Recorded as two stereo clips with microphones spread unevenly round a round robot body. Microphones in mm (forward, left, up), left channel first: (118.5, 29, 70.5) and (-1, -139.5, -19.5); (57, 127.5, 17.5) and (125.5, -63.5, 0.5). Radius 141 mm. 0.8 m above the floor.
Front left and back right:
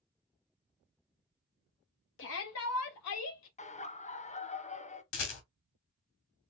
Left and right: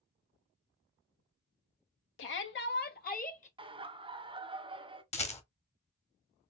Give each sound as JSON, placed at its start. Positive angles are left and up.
{"t": 2.2, "sound": "a shout", "azimuth_deg": 105, "distance_m": 0.9}
{"t": 3.6, "sound": "laughter", "azimuth_deg": -15, "distance_m": 1.0}
{"t": 5.1, "sound": "a rattle", "azimuth_deg": 50, "distance_m": 1.2}